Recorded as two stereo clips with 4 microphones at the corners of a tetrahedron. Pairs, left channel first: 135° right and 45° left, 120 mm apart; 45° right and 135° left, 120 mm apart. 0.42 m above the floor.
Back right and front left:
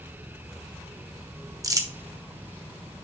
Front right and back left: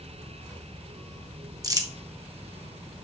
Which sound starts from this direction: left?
Crumpling, at 1.6 s.